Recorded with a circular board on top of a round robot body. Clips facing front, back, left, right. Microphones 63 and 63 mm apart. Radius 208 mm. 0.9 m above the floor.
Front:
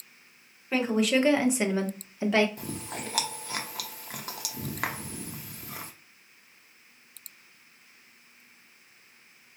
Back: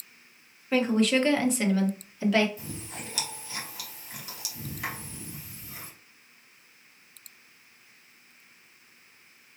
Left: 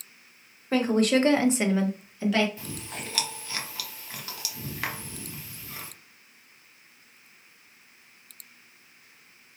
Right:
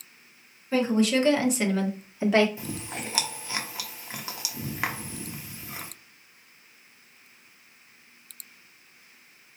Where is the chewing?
20° right, 0.8 m.